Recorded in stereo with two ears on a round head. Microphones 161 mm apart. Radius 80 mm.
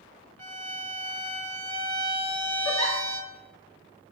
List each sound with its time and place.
0.4 s a violin: 10° left (ahead or behind), 1.6 m
2.6 s a giggle: 65° left (ahead or behind), 3.5 m